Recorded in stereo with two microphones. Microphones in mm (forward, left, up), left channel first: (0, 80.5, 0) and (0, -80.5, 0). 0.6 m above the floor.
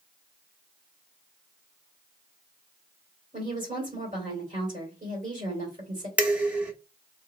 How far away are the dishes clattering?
About 0.7 m.